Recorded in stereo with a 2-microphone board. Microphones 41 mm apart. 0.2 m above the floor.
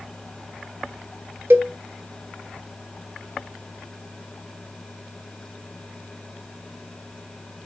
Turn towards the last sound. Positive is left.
turn(degrees=-70)  # may be behind; listen again after turning